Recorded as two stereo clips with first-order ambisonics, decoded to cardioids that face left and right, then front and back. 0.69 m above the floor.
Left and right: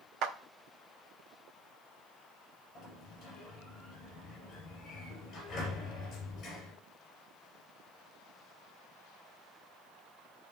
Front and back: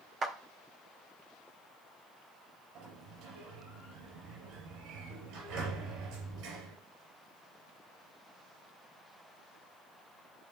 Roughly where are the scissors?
I don't hear scissors.